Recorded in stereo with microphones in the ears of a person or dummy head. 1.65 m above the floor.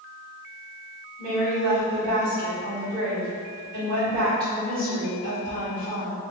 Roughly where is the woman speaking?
Right.